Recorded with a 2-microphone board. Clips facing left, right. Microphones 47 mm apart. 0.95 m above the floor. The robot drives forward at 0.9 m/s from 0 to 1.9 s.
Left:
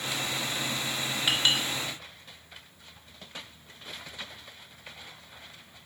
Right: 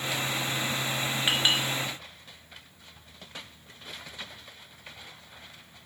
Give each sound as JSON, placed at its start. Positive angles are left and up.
{"t": 1.3, "sound": "a clink", "side_deg": -20, "distance_m": 1.7}